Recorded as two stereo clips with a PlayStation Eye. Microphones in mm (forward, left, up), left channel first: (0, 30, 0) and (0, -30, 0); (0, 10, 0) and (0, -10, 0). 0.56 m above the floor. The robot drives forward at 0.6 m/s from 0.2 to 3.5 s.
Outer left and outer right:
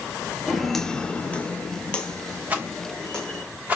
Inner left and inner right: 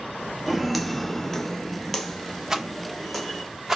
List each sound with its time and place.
0.5 s footsteps: centre (ahead or behind), 0.9 m; by 3.4 s 15° left (ahead or behind), 2.5 m
2.5 s a rattle: 25° right (ahead or behind), 1.1 m; by 3.8 s 20° right (ahead or behind), 1.2 m